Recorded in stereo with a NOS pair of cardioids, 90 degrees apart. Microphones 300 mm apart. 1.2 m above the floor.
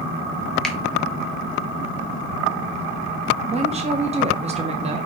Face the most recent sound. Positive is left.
turn(degrees=-20)